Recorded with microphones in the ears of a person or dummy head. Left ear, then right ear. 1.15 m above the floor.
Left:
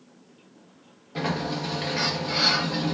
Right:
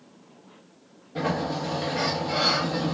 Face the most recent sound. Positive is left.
turn(degrees=30)  # may be behind; listen again after turning